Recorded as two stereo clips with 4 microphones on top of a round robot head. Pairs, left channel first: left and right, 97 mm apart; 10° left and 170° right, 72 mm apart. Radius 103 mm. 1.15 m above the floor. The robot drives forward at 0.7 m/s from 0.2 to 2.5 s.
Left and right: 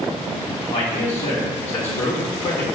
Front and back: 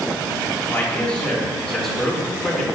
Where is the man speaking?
75° left, 2.5 m; by 2.6 s 105° left, 2.5 m.